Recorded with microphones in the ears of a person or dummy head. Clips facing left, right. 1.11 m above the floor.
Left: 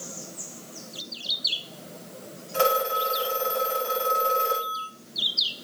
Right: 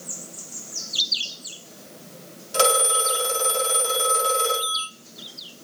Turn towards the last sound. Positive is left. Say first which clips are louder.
# right 2 dB
turn(degrees=-65)  # may be behind; listen again after turning